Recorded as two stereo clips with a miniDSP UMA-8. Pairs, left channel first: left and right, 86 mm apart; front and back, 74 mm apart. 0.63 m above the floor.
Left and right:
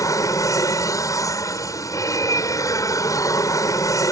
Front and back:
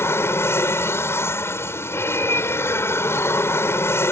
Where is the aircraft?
50° left.